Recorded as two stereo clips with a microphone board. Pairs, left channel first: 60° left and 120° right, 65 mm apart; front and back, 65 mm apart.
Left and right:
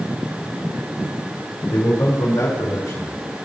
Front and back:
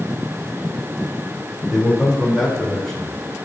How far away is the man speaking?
About 5 m.